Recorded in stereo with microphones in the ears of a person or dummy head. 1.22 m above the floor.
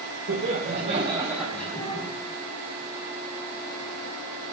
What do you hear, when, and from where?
0.3 s laughter: 65° right (ahead or behind), 1.2 m; by 2.1 s 25° left (ahead or behind), 1.2 m